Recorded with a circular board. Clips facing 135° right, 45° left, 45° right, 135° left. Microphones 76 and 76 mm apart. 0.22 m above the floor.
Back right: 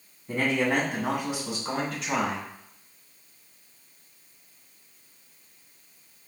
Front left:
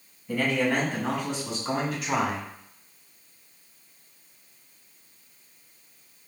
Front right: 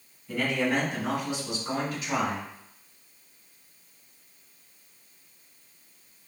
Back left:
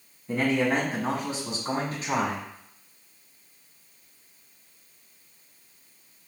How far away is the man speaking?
About 1.6 m.